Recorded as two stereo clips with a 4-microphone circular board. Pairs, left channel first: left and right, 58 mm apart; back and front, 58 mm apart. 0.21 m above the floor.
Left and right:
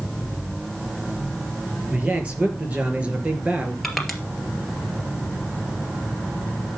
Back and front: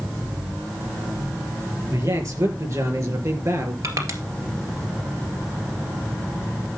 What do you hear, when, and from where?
1.9 s a man speaking: 20° right, 4.5 m; by 3.7 s 25° right, 3 m
3.8 s crushing: 5° left, 2 m